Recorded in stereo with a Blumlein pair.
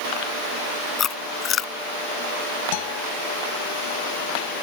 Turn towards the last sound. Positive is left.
turn(degrees=50)